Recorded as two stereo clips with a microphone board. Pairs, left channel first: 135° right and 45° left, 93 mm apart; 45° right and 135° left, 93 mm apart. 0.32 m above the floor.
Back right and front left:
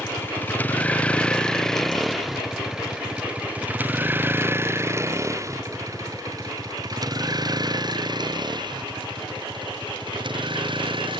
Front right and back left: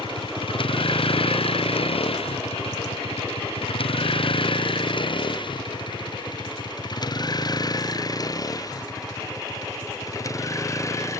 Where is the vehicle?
70° right; by 11.2 s 15° left.